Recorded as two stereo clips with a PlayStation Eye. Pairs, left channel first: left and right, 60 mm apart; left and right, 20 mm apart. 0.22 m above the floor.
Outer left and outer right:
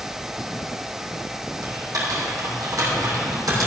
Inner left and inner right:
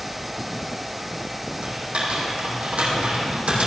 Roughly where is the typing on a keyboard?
Right.